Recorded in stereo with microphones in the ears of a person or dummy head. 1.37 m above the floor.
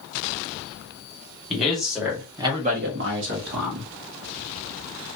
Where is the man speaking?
5° left (ahead or behind), 1.3 m; by 3.9 s 50° right (ahead or behind), 1.1 m.